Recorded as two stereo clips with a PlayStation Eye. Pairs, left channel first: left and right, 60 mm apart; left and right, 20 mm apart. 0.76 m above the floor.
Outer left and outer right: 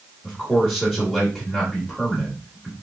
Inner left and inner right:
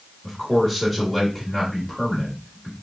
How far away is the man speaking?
About 1.4 m.